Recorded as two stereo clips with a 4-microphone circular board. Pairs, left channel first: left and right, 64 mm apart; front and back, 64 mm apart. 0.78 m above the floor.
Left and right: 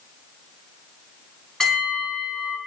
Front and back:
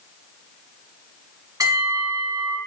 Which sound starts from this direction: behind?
A bell, at 1.6 s.